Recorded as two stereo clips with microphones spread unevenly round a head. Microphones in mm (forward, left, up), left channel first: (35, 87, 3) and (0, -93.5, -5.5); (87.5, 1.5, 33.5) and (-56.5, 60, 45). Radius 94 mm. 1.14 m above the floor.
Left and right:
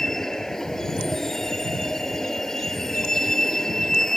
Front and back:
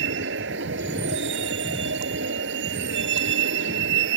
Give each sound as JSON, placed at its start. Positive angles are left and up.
{"t": 0.0, "sound": "a vehicle", "azimuth_deg": 165}